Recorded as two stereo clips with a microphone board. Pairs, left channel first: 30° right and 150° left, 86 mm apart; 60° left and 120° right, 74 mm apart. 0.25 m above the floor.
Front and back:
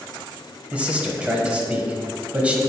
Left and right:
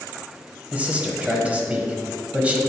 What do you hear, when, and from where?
0.7 s a man speaking: 160° right, 1.0 m